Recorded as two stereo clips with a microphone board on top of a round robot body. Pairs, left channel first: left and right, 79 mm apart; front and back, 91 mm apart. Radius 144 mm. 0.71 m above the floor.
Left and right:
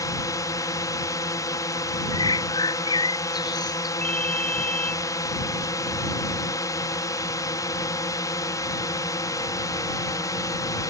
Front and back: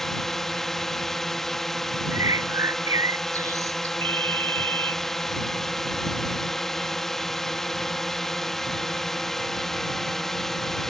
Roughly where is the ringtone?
Behind.